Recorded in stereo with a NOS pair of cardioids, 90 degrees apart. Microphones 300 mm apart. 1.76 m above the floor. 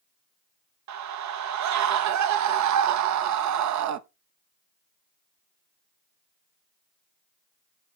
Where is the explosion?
No explosion in this recording.